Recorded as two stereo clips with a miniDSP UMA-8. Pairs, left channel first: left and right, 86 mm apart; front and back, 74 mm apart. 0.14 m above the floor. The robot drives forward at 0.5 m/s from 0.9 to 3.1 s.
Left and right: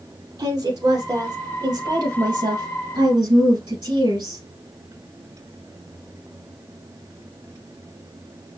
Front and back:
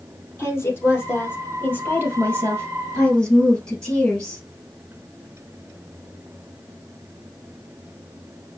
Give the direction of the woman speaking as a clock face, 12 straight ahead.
2 o'clock.